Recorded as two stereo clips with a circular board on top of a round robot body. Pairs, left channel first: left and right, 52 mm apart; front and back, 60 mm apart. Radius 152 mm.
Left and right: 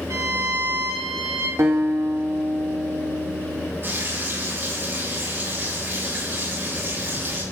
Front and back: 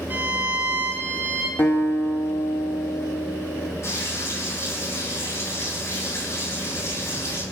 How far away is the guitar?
About 2.5 m.